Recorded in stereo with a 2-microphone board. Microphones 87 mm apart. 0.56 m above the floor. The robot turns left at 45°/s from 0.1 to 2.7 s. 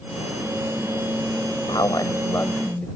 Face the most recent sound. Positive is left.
turn(degrees=20)